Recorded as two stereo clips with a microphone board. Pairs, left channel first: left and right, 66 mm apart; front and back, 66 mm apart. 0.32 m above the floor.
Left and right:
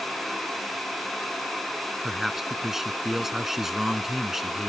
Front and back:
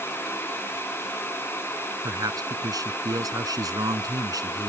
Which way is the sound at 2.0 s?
175° right.